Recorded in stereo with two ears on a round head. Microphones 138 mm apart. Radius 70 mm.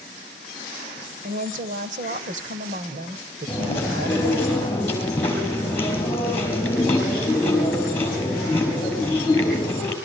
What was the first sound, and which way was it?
A woman speaking, 55° right (ahead or behind).